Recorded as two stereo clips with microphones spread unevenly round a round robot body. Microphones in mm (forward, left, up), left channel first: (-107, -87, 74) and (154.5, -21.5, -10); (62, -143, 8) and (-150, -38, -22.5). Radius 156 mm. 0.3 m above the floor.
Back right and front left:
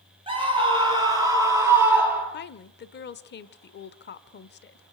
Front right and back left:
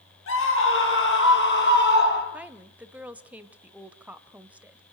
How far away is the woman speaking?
About 0.9 m.